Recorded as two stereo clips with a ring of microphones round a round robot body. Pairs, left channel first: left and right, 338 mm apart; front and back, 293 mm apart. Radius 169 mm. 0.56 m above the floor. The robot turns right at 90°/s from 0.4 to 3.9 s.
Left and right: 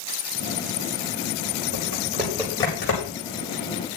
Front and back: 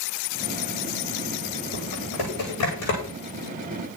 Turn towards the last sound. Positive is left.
turn(degrees=125)